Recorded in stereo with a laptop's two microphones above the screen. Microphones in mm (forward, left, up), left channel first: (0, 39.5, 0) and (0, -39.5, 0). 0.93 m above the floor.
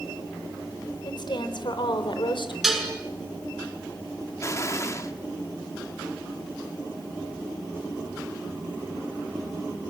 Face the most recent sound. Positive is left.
turn(degrees=35)  # may be behind; listen again after turning